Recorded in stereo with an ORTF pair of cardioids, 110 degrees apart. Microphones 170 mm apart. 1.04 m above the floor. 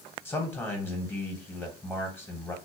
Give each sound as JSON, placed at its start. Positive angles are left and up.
{"t": 0.2, "sound": "a man speaking", "azimuth_deg": 15, "distance_m": 1.3}